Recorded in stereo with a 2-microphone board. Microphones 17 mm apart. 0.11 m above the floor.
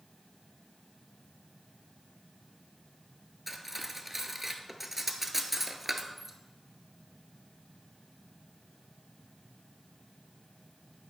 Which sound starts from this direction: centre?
Cutlery clinking, at 3.5 s.